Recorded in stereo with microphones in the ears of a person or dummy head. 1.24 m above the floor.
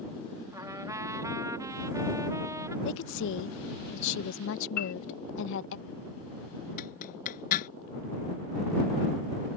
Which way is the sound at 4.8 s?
50° left (ahead or behind).